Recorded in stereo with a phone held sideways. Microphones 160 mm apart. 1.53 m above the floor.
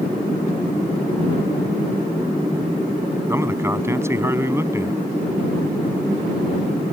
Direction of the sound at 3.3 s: 15° right (ahead or behind).